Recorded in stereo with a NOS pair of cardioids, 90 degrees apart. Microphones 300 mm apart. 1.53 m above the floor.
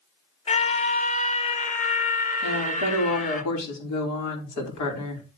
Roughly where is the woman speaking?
Ahead left.